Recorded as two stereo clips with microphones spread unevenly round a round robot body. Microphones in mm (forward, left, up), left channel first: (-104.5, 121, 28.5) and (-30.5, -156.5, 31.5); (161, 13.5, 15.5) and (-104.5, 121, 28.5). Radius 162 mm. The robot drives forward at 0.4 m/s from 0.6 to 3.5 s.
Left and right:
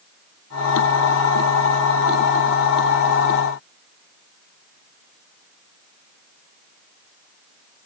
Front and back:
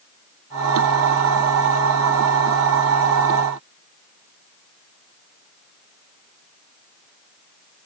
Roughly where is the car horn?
No car horn in this recording.